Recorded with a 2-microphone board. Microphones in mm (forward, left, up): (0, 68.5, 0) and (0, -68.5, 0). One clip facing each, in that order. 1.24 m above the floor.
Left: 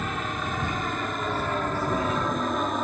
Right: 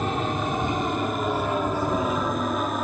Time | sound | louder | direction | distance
0.0 | an aircraft | right 5 dB | 30° right (ahead or behind) | ?